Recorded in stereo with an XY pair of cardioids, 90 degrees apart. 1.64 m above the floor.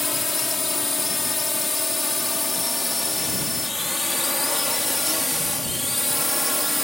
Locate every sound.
0.0 s a drone: 25° left; by 6.8 s 5° left